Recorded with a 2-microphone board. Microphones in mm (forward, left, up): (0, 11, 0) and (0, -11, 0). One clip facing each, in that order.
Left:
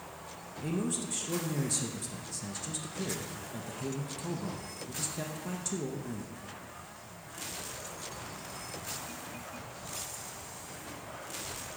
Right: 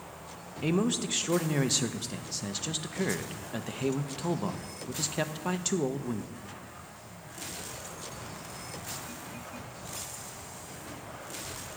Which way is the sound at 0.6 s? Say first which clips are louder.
Right 6 dB; 40° right (ahead or behind).